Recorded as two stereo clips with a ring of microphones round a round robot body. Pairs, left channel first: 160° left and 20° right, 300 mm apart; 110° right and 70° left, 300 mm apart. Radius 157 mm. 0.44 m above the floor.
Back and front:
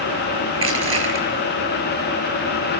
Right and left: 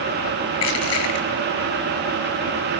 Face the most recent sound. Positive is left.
turn(degrees=-70)